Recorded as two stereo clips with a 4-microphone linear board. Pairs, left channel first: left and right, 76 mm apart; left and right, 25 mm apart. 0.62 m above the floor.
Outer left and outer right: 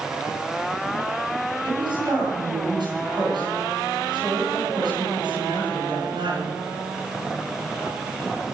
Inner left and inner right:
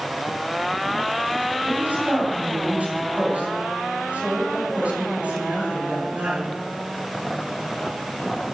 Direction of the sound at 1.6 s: 75° right (ahead or behind).